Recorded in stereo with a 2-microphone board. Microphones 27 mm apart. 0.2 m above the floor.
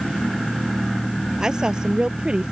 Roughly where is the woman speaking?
Right.